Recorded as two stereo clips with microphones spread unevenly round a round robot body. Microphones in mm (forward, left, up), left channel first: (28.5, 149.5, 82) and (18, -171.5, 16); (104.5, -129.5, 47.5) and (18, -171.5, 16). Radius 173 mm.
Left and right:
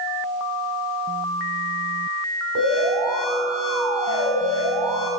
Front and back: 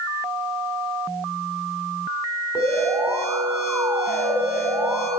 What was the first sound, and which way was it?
An alarm, 80° right.